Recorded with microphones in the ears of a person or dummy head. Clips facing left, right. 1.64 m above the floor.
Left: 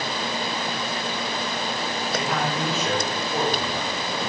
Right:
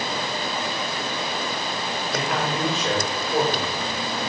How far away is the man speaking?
About 4.5 m.